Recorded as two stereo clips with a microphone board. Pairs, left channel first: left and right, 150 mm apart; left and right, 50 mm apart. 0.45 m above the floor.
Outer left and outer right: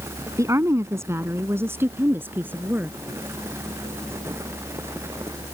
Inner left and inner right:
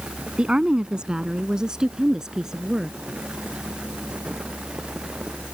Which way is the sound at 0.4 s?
20° right (ahead or behind).